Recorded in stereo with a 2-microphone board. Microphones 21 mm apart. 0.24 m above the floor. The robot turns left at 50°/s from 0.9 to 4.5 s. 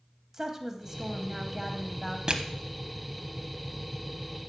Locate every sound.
0.3 s a woman speaking: 20° right (ahead or behind), 1.1 m; by 2.2 s centre (ahead or behind), 1.1 m
2.3 s crushing: 40° right (ahead or behind), 0.7 m